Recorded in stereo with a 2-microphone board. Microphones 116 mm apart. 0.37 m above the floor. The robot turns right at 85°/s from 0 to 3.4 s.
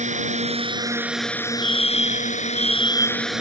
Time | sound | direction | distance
0.0 | a drone | 100° right | ?
1.6 | a fire alarm | 85° left | ?